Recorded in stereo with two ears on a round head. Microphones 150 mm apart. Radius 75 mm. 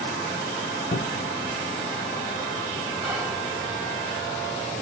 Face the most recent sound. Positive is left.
turn(degrees=-5)  # may be behind; listen again after turning